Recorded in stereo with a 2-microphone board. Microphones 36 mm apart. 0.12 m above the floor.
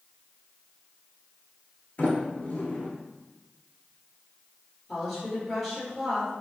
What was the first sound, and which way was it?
A sliding door, 45° left (ahead or behind).